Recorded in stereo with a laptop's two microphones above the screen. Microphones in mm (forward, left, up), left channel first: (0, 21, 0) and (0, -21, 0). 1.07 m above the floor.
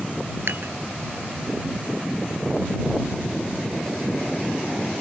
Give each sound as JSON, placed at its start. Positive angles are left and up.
{"t": 0.5, "sound": "dishes clattering", "side_deg": -60}